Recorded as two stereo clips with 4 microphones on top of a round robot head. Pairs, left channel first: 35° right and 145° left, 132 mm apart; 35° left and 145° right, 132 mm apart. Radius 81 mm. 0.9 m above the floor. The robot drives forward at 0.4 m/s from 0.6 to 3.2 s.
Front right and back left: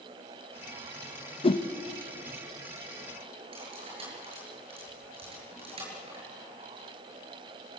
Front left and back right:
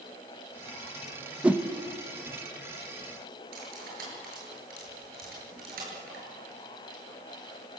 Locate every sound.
1.4 s a whoosh: 65° right, 1.1 m; by 1.7 s 70° right, 1.1 m
3.5 s cutlery clinking: 165° right, 8.5 m